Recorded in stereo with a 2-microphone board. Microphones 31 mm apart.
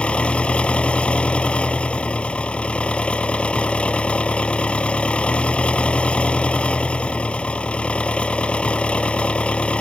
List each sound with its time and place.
0.0 s an engine running: 40° left (ahead or behind)